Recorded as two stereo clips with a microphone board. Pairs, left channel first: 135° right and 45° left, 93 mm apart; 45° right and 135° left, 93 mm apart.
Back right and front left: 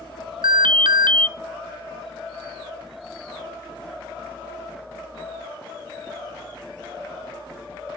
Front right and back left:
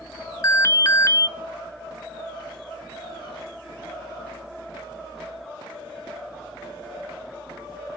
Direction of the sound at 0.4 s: 15° left.